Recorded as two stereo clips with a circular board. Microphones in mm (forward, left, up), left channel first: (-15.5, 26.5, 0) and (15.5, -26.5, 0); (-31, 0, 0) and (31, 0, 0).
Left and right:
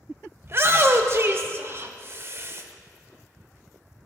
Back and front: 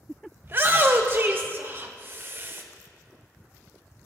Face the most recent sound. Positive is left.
turn(degrees=-35)